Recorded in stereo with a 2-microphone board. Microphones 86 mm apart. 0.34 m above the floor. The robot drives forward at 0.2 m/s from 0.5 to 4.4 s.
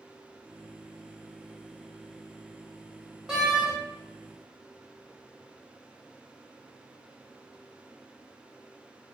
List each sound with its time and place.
3.3 s a door slam: 5° right (ahead or behind), 1.0 m